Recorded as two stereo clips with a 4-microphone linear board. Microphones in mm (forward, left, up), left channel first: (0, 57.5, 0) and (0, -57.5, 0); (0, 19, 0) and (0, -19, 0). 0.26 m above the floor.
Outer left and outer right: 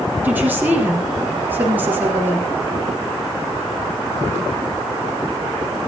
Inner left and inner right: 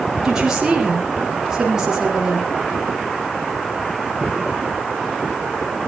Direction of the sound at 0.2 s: 15° right (ahead or behind).